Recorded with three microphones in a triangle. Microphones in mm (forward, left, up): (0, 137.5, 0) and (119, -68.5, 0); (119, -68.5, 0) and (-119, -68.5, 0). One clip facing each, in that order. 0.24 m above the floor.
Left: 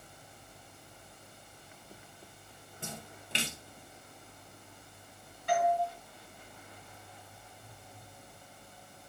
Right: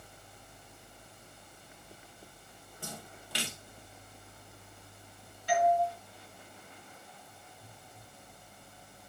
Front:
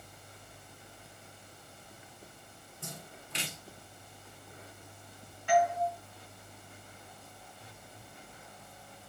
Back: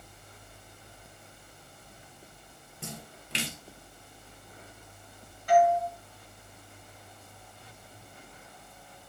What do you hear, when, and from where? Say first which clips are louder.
2.8 s a splash: left 1 dB, back 4 dB; 175° right, 2 m
5.5 s a doorbell: right 2 dB, back 5 dB; 140° left, 4.5 m